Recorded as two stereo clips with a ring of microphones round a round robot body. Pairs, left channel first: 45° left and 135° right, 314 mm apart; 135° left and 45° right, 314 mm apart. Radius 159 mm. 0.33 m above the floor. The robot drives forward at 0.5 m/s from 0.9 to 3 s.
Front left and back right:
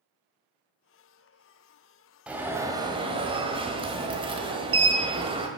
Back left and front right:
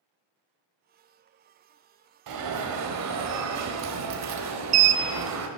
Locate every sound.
2.3 s an alarm: 50° right, 1.5 m; by 5.5 s 65° right, 1.3 m